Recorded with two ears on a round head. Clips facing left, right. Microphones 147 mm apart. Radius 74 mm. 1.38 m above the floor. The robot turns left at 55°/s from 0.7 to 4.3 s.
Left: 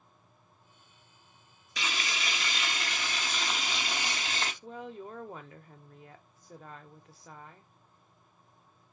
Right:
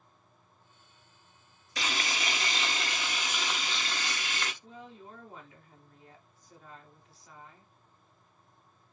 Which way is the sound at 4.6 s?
50° left (ahead or behind).